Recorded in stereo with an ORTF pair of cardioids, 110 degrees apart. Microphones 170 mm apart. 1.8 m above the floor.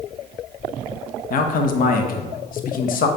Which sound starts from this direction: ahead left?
A man speaking, at 1.3 s.